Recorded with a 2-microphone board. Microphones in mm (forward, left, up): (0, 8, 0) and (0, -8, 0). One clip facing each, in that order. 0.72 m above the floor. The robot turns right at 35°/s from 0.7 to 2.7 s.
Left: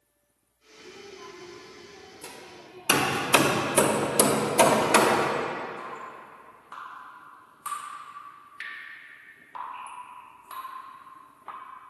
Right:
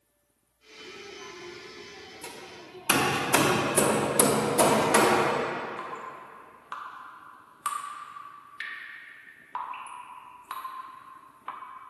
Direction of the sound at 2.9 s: 65° left (ahead or behind).